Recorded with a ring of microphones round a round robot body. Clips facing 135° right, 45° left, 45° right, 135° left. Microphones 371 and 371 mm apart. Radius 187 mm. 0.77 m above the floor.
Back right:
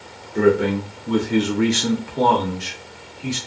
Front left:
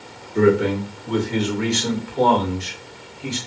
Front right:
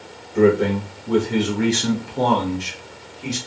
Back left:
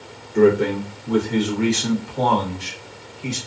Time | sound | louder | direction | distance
0.3 | a man speaking | even, even | 115° left | 0.7 m